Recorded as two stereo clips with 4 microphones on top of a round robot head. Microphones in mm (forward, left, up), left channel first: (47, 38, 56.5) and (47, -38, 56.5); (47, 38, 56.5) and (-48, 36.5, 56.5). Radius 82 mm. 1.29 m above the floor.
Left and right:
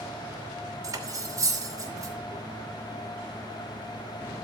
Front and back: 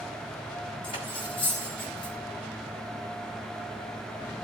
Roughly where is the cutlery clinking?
Ahead right.